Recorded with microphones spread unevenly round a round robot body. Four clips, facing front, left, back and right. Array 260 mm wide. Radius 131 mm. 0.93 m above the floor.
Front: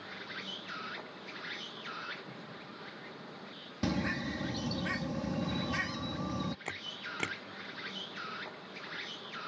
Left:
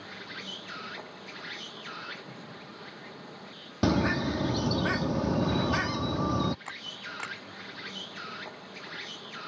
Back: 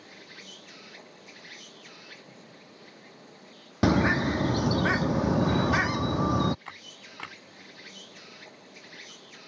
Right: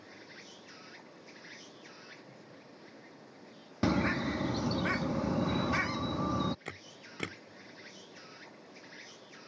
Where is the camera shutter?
60° right.